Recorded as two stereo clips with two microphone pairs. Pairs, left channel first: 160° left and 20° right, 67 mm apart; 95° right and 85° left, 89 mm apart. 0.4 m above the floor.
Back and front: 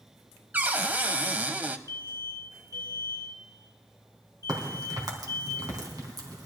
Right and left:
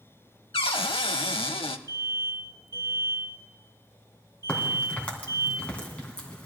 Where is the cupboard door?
85° right, 0.6 m.